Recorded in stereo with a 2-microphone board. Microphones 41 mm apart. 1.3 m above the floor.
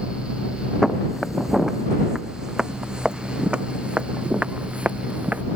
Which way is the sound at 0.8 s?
Centre (ahead or behind).